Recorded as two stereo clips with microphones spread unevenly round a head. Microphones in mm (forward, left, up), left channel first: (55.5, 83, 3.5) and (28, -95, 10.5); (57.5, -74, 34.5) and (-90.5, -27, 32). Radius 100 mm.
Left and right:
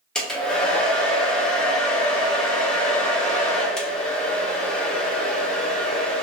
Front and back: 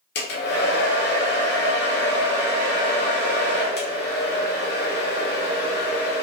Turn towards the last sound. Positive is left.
turn(degrees=-5)